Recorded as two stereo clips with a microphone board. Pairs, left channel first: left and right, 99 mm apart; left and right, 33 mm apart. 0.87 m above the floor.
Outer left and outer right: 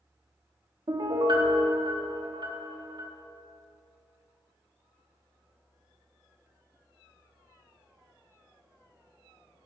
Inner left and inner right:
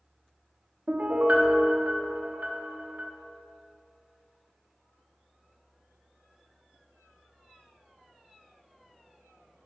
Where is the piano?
55° right (ahead or behind), 0.9 m.